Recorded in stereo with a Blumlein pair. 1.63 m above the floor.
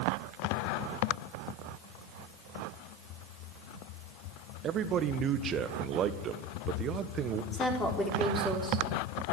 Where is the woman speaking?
15° left, 4.5 m.